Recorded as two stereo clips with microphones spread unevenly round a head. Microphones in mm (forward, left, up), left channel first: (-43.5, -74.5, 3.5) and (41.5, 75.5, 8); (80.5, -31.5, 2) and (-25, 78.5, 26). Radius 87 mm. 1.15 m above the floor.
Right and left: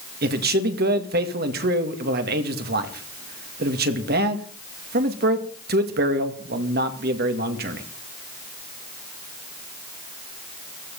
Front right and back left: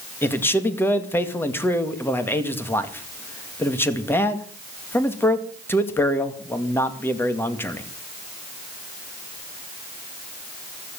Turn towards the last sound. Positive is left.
turn(degrees=25)